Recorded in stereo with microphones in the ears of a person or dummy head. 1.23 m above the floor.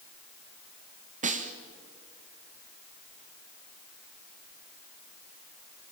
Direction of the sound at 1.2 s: 40° right (ahead or behind).